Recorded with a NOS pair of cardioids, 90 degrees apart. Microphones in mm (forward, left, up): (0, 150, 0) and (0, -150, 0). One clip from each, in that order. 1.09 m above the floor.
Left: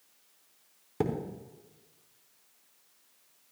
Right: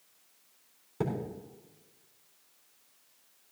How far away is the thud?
About 4 m.